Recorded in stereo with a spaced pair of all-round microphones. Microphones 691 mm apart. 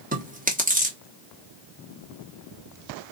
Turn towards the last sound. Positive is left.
turn(degrees=-10)  # may be behind; listen again after turning